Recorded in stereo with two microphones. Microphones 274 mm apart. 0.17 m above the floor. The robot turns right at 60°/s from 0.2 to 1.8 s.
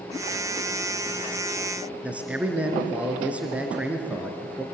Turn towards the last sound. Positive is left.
turn(degrees=-5)  # may be behind; listen again after turning